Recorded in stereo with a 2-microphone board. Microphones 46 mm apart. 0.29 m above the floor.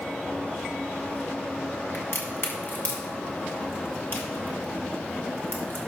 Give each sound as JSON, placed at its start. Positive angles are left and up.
{"t": 1.9, "sound": "a crack", "side_deg": 55, "distance_m": 2.0}